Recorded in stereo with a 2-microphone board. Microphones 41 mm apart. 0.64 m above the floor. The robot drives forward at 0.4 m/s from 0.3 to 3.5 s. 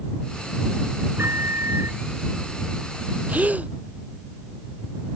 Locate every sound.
1.2 s a microwave: 85° right
3.3 s a gasp: 35° right (ahead or behind)